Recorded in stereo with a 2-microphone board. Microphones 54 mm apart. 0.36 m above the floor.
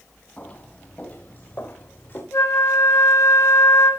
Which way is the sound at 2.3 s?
80° left.